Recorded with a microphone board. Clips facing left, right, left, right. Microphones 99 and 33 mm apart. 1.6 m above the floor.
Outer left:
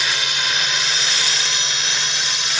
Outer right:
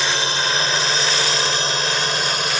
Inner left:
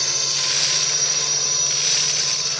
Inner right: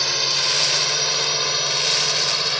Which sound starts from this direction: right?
A drone, at 0.0 s.